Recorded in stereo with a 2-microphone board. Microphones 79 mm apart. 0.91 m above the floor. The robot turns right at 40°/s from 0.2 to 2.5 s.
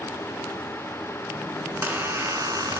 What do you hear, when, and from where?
1.6 s a squeak: 165° right, 2.5 m; by 2.8 s 135° right, 2.5 m